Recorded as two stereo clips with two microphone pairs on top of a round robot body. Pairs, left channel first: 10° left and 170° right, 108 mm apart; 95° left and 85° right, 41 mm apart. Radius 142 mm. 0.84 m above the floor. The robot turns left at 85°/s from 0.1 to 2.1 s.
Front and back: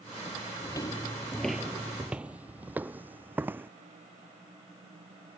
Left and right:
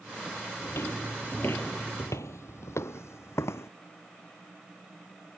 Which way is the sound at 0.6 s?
75° left.